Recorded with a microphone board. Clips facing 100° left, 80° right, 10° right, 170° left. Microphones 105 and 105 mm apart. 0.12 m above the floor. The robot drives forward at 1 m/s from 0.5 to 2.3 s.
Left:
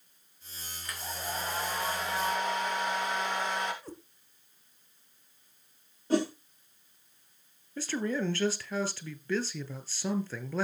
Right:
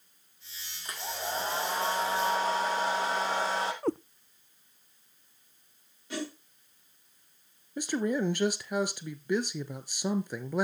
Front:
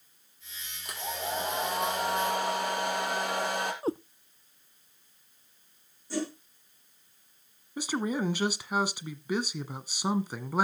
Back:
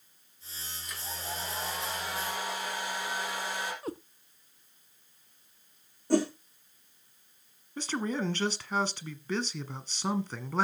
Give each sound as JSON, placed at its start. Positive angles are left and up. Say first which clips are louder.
{"t": 0.8, "sound": "a hair dryer", "louder": "right 3 dB, front 6 dB", "azimuth_deg": -20, "distance_m": 6.0}
{"t": 3.8, "sound": "a cat meowing", "louder": "right 16 dB, front 7 dB", "azimuth_deg": -75, "distance_m": 0.5}
{"t": 6.1, "sound": "a whoosh", "louder": "left 9 dB, back 7 dB", "azimuth_deg": 145, "distance_m": 4.5}
{"t": 7.8, "sound": "a man speaking", "louder": "right 3 dB, front 2 dB", "azimuth_deg": -65, "distance_m": 1.1}